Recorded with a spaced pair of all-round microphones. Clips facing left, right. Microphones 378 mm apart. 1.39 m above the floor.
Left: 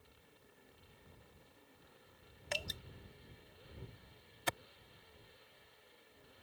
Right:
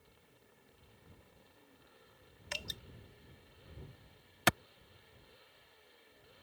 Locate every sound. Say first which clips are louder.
2.5 s dripping: left 4 dB; 65° left (ahead or behind)
4.5 s a clap: right 9 dB; 85° right